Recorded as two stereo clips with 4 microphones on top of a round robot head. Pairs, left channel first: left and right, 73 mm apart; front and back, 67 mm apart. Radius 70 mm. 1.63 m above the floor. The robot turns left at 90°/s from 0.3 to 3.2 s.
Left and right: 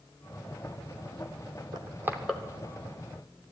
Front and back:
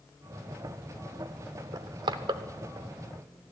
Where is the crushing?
130° right, 0.8 m; by 2.4 s 170° left, 0.8 m.